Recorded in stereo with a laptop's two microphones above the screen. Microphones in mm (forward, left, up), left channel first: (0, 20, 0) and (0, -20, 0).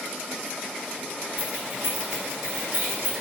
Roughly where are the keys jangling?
Right.